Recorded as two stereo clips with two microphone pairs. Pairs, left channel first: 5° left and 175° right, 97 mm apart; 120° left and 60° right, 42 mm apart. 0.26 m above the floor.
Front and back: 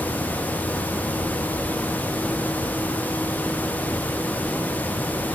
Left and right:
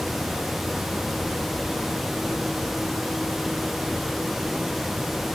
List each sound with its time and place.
Only background noise.